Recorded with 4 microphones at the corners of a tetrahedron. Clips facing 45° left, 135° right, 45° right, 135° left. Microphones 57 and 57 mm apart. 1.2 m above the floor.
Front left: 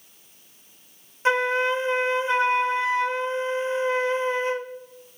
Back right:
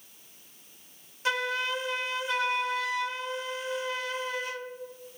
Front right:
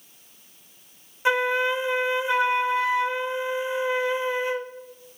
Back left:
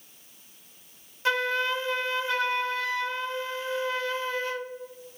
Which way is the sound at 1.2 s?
15° left.